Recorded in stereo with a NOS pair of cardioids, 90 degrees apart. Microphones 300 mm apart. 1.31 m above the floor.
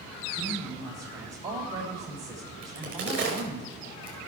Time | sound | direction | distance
0.3 | a woman speaking | 55° right | 3 m
2.6 | a crack | 45° right | 5 m